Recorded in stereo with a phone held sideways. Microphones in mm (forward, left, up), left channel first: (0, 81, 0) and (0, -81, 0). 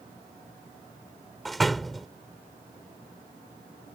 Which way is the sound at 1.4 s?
Centre (ahead or behind).